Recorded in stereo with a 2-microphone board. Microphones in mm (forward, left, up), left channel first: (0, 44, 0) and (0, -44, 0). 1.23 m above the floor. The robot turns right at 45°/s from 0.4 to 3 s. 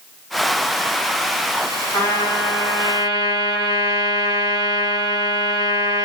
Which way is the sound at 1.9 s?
40° left.